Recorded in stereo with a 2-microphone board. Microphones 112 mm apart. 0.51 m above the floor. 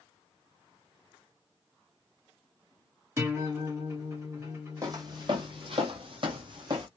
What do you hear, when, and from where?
3.2 s a guitar: 25° right (ahead or behind), 1.2 m
4.8 s footsteps: 35° right (ahead or behind), 0.9 m; by 6.9 s 40° right (ahead or behind), 1.0 m